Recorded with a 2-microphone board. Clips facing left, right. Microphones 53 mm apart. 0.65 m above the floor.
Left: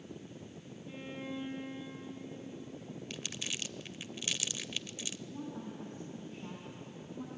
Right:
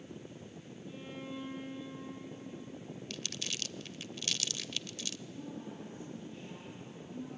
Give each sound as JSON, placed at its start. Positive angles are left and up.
{"t": 0.9, "sound": "a violin", "side_deg": 35, "distance_m": 5.0}
{"t": 3.1, "sound": "crumpling", "side_deg": 15, "distance_m": 0.5}
{"t": 5.3, "sound": "a woman speaking", "side_deg": 55, "distance_m": 6.5}